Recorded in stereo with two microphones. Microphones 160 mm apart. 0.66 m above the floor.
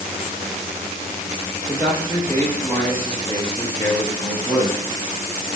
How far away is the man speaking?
About 4 m.